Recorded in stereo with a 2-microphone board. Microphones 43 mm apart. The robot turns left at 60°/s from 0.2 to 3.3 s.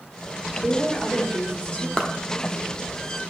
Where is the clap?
20° left (ahead or behind), 0.8 m.